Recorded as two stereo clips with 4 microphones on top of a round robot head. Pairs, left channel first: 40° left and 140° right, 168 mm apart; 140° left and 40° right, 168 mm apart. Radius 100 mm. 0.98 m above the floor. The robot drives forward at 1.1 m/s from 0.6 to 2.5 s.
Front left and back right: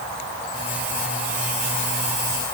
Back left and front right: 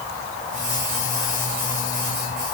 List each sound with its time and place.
Only background noise.